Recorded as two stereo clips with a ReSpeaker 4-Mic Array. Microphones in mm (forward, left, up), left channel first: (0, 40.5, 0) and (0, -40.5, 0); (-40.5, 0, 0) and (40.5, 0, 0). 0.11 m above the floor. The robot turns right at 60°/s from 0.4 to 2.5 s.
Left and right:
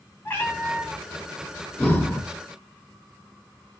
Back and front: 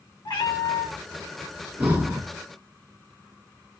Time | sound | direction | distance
0.2 | a cat meowing | 150° left | 1.4 m
1.8 | breathing | 45° left | 0.8 m